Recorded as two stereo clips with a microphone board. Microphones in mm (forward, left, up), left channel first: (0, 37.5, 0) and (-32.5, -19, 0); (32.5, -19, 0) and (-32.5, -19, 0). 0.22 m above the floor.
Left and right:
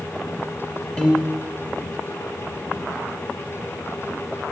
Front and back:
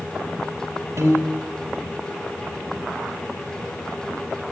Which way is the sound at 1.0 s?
130° left.